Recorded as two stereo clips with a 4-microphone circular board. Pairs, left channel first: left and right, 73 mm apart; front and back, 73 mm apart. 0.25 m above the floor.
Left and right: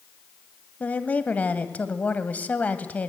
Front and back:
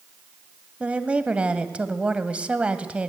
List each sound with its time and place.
0.8 s a woman speaking: 130° left, 1.1 m